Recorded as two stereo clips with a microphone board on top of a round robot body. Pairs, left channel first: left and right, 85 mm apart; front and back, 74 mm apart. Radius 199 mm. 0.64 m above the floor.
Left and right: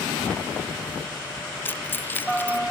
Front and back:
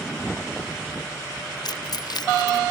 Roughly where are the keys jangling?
Ahead left.